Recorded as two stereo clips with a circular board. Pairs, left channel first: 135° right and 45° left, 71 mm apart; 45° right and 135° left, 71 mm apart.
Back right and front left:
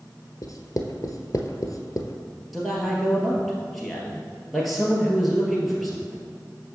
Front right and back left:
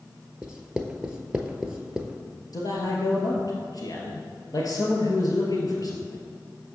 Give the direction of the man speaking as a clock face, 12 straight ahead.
2 o'clock.